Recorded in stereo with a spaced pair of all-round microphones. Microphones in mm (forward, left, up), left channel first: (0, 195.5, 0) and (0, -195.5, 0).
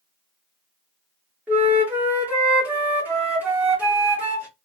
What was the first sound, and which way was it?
A flute, 5° right (ahead or behind).